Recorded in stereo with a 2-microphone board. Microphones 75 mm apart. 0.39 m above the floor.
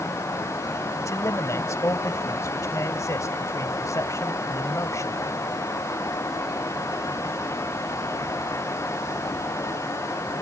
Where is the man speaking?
45° left (ahead or behind).